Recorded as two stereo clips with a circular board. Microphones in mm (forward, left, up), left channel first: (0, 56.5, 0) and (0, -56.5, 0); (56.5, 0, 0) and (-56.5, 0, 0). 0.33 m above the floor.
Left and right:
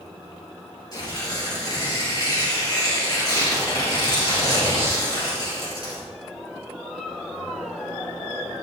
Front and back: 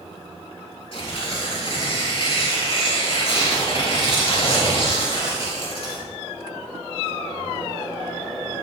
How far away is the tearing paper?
About 3 m.